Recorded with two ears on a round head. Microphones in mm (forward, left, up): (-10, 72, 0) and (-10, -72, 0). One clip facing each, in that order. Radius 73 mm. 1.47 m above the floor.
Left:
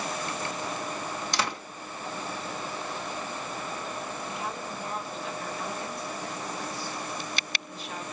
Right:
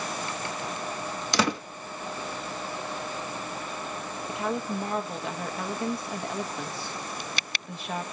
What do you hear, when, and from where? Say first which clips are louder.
1.3 s a door slam: right 7 dB; 65° right (ahead or behind), 1.3 m
4.3 s a woman speaking: right 5 dB; 50° right (ahead or behind), 1.5 m